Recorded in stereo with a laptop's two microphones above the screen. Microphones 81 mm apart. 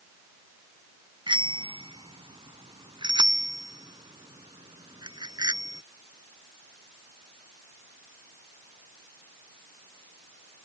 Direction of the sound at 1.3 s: 75° right (ahead or behind).